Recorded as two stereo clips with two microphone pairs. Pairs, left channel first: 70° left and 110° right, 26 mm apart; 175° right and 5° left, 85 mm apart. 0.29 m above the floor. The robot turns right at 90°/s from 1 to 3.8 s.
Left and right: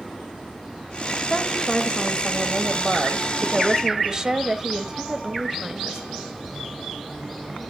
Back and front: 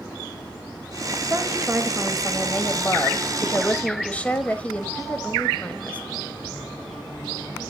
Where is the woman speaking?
15° left, 1.3 m; by 6.0 s 120° right, 1.3 m.